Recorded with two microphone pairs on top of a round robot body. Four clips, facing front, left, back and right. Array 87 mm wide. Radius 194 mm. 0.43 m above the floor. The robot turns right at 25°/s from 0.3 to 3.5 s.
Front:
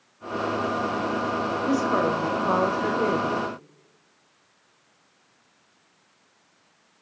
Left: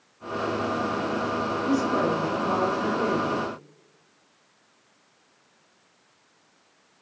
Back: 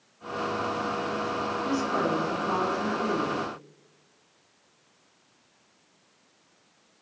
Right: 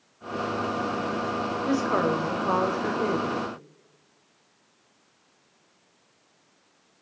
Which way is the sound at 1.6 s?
55° right.